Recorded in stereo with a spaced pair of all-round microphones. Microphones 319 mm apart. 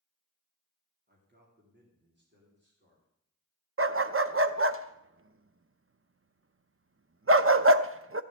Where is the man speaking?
30° right (ahead or behind), 3 m; by 3.1 s 35° right (ahead or behind), 4 m.